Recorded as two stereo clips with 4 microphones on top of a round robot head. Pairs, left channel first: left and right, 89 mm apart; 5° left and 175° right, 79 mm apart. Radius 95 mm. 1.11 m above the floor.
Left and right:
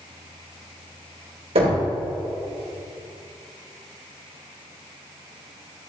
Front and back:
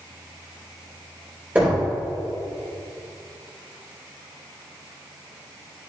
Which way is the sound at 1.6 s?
100° right.